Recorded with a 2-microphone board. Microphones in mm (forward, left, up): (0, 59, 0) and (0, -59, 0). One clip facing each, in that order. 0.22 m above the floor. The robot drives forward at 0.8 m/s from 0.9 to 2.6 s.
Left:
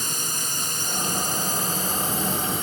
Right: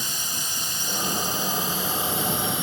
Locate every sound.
0.0 s a drone: 45° left (ahead or behind); by 2.6 s 40° left (ahead or behind)